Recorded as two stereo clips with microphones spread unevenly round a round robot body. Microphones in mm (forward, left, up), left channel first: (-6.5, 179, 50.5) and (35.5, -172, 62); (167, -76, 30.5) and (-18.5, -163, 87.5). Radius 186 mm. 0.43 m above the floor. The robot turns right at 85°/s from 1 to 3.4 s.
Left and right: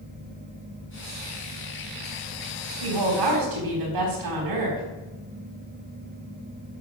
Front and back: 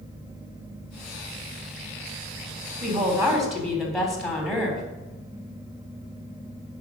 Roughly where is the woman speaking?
Right.